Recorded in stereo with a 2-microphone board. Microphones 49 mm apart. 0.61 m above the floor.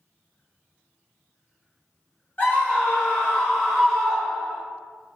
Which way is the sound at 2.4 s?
40° left (ahead or behind).